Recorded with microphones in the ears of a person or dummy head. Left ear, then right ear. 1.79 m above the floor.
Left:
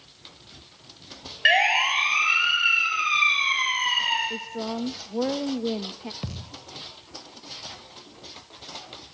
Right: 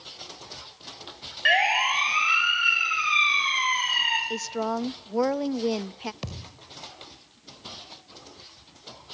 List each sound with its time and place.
1.4 s a siren: 10° left (ahead or behind), 6.5 m; by 4.2 s 20° right (ahead or behind), 7.5 m
4.3 s a woman speaking: 50° right (ahead or behind), 0.8 m
6.2 s a thud: 15° right (ahead or behind), 1.7 m